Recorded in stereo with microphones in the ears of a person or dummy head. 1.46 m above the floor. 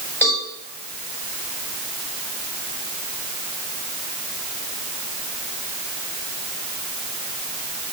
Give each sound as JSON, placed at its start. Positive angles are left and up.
{"t": 0.2, "sound": "a cowbell", "side_deg": 15, "distance_m": 5.5}